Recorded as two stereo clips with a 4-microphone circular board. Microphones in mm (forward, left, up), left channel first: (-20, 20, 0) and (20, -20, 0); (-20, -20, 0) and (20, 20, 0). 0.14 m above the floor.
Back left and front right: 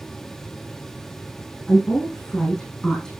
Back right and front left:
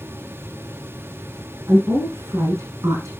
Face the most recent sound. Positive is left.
turn(degrees=50)